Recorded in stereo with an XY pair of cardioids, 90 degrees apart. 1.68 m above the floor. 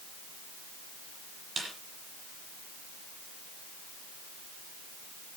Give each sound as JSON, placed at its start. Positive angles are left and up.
{"t": 1.6, "sound": "a snare drum", "azimuth_deg": -40, "distance_m": 8.5}